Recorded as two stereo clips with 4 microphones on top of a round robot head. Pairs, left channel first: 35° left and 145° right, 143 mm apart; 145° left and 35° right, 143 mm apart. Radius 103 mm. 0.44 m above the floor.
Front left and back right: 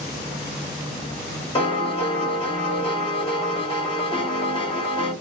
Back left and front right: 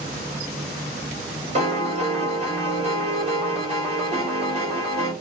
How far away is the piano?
About 1.6 m.